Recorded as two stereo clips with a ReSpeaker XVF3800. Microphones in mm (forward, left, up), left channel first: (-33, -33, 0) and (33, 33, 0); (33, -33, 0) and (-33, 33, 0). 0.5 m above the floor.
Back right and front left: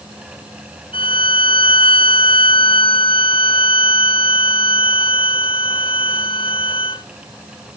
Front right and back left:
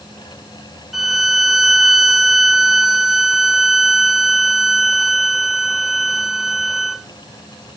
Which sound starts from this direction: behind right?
A violin, at 0.9 s.